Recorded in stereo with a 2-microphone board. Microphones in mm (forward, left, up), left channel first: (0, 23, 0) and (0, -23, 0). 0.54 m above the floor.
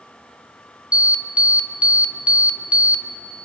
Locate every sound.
0.9 s an alarm: 25° right (ahead or behind), 0.7 m